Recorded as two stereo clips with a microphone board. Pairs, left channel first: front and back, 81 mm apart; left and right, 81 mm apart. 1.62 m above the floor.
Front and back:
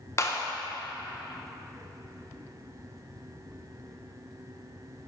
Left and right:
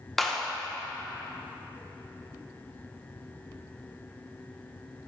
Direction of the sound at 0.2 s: Straight ahead.